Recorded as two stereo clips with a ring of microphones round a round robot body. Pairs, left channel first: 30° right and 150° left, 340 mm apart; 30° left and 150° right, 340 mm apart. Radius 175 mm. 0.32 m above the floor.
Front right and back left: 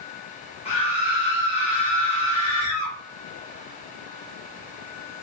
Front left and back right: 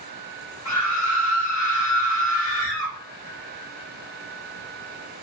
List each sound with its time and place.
0.7 s a scream: 35° left, 1.6 m